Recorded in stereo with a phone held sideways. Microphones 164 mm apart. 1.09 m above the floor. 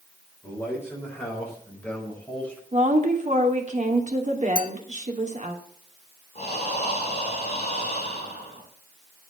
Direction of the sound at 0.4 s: 15° left (ahead or behind).